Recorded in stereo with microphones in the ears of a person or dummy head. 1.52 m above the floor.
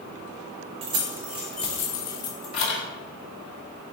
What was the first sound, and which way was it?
Keys jangling, 30° right (ahead or behind).